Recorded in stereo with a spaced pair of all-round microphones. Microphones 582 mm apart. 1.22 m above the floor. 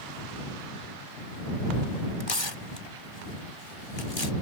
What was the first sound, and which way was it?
Tearing paper, 50° left (ahead or behind).